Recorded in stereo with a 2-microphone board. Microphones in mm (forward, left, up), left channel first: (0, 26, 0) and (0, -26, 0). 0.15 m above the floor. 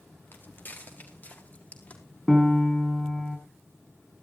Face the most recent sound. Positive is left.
turn(degrees=10)  # may be behind; listen again after turning